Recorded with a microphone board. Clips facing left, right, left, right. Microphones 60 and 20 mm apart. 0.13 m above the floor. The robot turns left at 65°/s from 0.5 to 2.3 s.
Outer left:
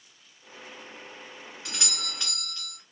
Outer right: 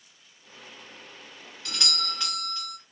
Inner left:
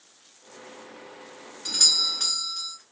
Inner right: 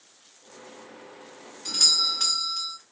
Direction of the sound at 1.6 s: 40° left.